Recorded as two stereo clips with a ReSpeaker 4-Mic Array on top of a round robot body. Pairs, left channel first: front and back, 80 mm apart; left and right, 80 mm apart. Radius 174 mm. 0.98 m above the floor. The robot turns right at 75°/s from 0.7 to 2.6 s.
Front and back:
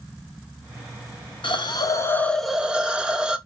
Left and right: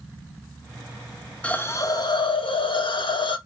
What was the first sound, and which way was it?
A hiss, 15° left.